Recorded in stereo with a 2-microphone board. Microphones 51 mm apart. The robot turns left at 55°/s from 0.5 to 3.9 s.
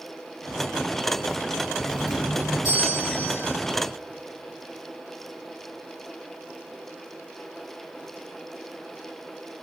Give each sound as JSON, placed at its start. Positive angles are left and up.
{"t": 1.9, "sound": "a doorbell", "azimuth_deg": 115, "distance_m": 6.5}